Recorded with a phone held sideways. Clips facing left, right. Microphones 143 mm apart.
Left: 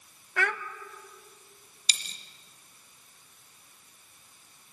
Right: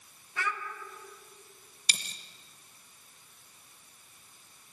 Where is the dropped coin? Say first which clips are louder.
Right 1 dB; 50° right (ahead or behind), 1.2 m.